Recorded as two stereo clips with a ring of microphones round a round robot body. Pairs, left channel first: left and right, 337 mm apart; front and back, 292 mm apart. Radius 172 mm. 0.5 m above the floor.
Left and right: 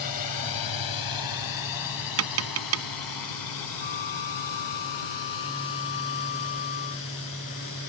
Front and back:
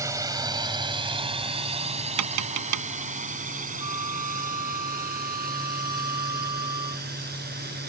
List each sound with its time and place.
0.0 s a drone: 100° left; by 7.9 s 125° left
2.2 s tapping: 140° right
3.8 s a flute: 105° left